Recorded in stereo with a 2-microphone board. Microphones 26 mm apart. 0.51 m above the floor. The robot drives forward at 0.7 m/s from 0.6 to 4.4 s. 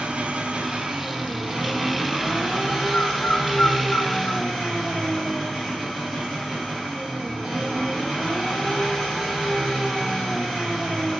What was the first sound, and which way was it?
An engine running, 50° right (ahead or behind).